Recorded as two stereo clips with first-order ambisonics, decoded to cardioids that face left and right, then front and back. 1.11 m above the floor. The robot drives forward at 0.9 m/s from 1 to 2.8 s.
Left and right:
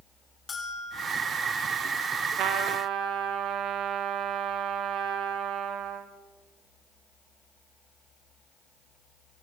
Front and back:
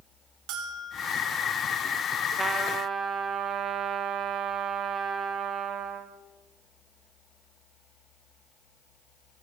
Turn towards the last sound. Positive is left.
turn(degrees=-125)